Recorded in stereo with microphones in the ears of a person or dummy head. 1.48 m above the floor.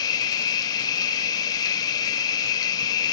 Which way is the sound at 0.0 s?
20° left (ahead or behind).